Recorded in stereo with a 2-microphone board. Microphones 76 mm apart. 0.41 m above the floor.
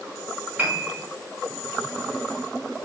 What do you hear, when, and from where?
0.6 s a piano: 25° right (ahead or behind), 0.9 m